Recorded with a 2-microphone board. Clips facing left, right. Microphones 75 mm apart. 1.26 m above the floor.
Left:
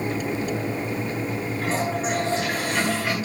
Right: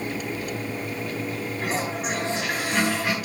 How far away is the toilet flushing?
About 7.5 m.